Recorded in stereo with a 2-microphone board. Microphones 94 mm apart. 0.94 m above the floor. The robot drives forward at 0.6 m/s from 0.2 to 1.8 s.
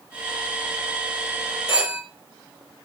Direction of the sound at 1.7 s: 55° left (ahead or behind).